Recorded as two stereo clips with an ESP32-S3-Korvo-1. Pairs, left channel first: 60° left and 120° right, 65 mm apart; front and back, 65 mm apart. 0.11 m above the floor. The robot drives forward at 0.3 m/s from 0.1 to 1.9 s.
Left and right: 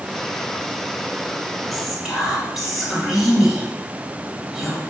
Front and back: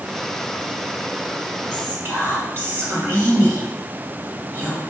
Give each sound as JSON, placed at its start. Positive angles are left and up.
{"t": 1.7, "sound": "whispering", "azimuth_deg": 160, "distance_m": 2.0}